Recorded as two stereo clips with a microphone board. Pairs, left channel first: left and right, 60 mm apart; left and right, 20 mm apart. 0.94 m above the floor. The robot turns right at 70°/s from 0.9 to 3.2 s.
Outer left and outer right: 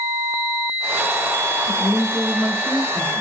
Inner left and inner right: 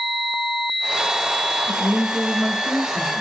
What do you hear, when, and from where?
1.7 s a woman speaking: 135° left, 1.9 m; by 3.2 s 120° right, 1.9 m